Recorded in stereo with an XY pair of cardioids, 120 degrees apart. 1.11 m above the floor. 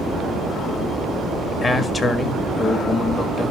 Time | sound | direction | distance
1.6 | a man speaking | 35° left | 1.9 m